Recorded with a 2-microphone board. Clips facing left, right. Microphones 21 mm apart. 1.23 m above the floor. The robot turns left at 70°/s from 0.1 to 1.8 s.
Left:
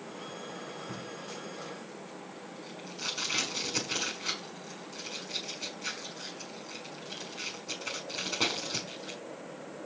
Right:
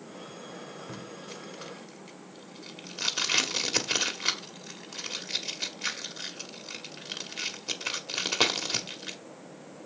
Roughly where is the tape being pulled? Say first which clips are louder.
Left 1 dB; right.